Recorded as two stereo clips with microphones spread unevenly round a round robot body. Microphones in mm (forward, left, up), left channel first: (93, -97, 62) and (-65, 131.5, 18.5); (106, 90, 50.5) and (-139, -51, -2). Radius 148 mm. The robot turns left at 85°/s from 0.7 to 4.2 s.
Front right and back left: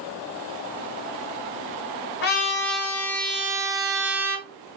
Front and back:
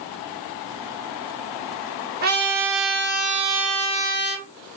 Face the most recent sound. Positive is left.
turn(degrees=85)